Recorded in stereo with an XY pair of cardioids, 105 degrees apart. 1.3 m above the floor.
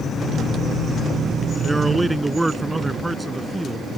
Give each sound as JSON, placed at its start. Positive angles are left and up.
{"t": 1.6, "sound": "a man speaking", "azimuth_deg": -15}